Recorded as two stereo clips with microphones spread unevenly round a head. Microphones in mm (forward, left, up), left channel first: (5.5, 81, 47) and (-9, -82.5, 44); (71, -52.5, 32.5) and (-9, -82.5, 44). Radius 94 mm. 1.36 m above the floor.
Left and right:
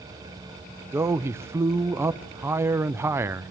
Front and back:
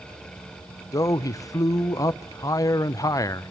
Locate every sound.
0.9 s a man speaking: 20° right, 0.7 m